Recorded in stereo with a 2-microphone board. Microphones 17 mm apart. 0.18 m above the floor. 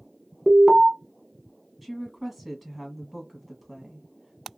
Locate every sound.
0.5 s an alarm: 25° right (ahead or behind), 0.9 m
1.8 s a woman speaking: 10° right (ahead or behind), 1.4 m